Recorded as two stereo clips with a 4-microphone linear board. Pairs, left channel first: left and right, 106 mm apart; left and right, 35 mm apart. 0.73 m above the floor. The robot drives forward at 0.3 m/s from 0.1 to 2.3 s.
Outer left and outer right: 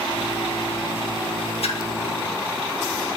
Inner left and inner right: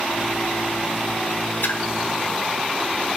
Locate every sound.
1.6 s a splash: 70° left (ahead or behind), 0.7 m; by 1.8 s 65° left (ahead or behind), 0.7 m